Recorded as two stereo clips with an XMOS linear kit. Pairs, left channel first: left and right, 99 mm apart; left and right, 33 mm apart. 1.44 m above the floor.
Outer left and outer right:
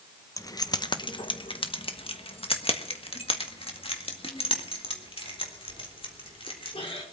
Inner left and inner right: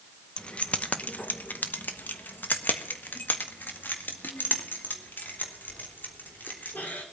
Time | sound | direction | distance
0.4 | keys jangling | 35° left (ahead or behind) | 0.9 m